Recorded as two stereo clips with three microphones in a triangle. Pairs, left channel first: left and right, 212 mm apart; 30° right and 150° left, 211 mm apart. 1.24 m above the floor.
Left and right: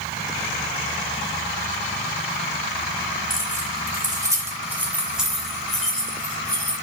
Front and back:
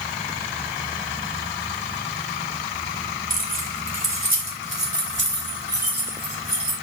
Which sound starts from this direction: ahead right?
Keys jangling, at 3.3 s.